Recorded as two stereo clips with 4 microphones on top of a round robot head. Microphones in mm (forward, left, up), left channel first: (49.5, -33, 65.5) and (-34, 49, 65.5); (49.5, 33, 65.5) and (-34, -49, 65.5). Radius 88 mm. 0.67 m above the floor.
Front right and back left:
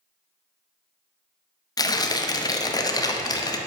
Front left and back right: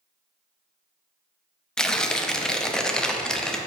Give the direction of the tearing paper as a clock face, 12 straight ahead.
1 o'clock.